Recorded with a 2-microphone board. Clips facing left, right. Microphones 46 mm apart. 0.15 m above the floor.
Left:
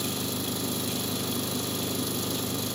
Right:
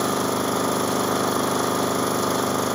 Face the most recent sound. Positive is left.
turn(degrees=-55)  # may be behind; listen again after turning